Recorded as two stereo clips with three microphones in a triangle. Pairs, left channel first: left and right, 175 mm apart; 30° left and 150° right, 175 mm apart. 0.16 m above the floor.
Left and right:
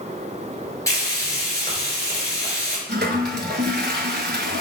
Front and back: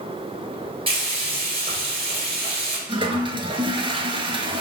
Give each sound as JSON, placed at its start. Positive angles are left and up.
{"t": 0.9, "sound": "frying", "azimuth_deg": 160, "distance_m": 1.9}
{"t": 2.9, "sound": "a toilet flushing", "azimuth_deg": -90, "distance_m": 0.7}